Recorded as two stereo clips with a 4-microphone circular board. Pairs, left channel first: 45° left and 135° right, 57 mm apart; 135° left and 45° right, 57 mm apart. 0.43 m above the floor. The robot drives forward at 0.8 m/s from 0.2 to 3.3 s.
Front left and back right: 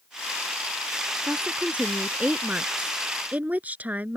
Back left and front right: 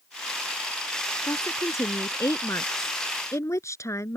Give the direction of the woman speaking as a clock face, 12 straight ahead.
7 o'clock.